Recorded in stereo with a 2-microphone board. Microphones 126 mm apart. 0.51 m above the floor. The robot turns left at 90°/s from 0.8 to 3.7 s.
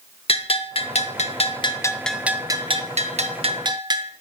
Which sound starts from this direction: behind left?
A bell, at 0.3 s.